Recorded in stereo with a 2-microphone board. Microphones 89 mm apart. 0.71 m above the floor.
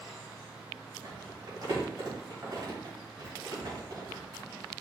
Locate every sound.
1.0 s crumpling: 45° right (ahead or behind), 4 m